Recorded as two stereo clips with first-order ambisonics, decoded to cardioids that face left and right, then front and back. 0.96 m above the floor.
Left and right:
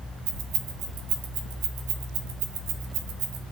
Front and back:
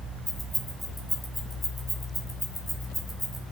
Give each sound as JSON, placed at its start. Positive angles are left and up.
{"t": 0.3, "sound": "keys jangling", "azimuth_deg": -85, "distance_m": 2.0}